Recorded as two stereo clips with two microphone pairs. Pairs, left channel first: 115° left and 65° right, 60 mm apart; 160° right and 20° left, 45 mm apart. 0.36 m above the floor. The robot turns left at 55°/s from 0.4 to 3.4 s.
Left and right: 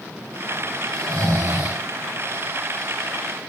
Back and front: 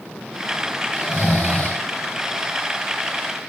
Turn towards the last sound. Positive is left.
turn(degrees=140)